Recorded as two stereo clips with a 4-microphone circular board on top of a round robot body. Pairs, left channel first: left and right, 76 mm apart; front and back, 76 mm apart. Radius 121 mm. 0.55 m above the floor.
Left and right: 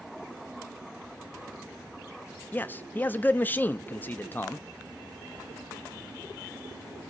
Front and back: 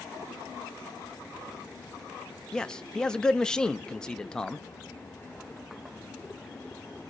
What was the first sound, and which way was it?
A man speaking, 70° left.